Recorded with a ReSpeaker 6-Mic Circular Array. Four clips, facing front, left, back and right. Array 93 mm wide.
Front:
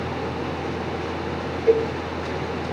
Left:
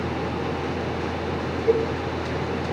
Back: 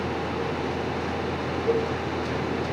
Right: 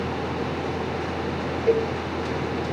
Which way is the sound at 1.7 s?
50° right.